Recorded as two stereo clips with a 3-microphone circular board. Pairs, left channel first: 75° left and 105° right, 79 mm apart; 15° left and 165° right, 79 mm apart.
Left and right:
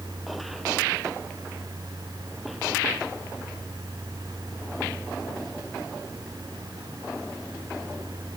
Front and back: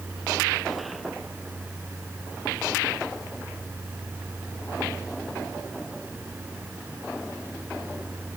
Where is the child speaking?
No child speaking in this recording.